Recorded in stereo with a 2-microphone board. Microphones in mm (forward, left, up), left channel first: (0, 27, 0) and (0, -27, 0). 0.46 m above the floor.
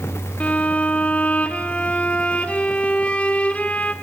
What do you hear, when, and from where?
0.4 s a violin: 25° left (ahead or behind), 1.0 m